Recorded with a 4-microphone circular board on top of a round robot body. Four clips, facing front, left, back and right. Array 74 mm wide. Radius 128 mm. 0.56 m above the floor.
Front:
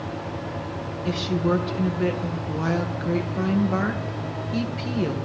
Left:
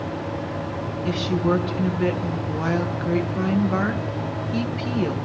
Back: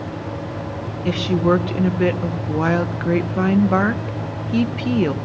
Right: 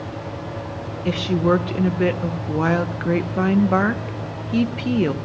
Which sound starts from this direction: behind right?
A woman speaking, at 1.1 s.